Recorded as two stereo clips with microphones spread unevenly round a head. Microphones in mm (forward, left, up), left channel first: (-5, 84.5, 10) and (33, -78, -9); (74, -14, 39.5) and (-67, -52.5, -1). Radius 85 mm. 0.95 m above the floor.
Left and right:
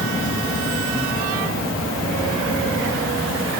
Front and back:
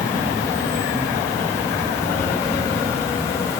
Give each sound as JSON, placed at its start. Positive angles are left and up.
{"t": 0.0, "sound": "an insect", "azimuth_deg": 95, "distance_m": 1.0}